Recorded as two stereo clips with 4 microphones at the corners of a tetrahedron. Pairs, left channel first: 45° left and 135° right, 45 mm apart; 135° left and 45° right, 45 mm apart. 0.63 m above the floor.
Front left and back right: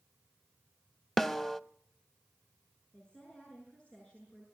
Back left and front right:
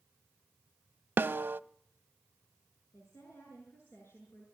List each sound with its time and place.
1.2 s a snare drum: 35° right, 0.6 m
2.9 s a woman speaking: 115° left, 8.5 m